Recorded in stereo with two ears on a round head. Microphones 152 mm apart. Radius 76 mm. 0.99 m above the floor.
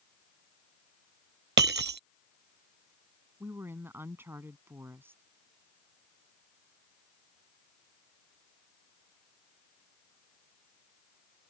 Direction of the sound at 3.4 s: 15° right (ahead or behind).